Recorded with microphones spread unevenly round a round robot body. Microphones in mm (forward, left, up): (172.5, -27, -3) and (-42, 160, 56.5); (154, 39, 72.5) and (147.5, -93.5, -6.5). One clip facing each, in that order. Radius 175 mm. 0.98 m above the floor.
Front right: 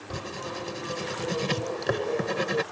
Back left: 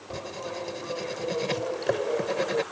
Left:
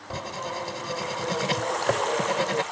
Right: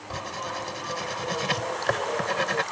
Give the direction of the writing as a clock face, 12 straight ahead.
11 o'clock.